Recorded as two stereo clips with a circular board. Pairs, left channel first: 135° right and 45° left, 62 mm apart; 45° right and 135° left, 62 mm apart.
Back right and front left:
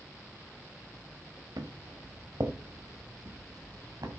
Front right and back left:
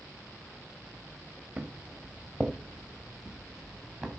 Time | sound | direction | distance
1.6 | footsteps | 50° left | 2.5 m